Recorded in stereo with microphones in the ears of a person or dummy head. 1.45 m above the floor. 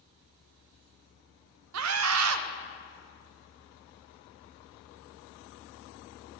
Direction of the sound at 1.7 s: 75° right (ahead or behind).